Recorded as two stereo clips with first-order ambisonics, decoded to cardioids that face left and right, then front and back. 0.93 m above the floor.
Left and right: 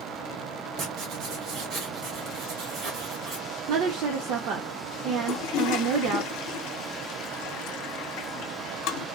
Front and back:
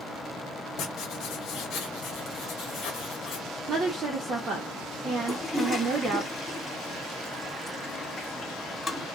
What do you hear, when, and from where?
0.8 s writing: 45° right, 1.7 m
3.7 s a woman speaking: 120° right, 0.9 m
5.3 s a toilet flushing: 75° left, 1.2 m